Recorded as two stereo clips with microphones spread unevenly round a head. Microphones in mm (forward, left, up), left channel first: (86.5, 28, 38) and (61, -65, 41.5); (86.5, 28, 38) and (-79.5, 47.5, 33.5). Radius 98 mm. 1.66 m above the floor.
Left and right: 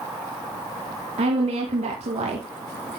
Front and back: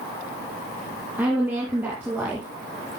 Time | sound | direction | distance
1.2 | a woman speaking | 105° right | 2.5 m